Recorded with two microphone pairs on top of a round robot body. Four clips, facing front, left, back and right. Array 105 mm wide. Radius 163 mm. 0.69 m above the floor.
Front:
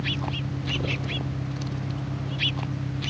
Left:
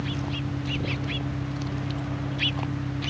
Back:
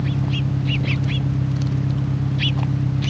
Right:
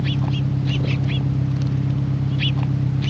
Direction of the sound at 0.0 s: 120° right.